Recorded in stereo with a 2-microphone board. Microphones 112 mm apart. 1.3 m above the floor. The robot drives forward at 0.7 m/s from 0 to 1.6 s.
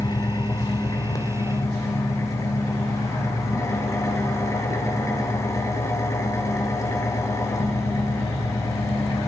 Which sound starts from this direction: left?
An engine running, at 0.0 s.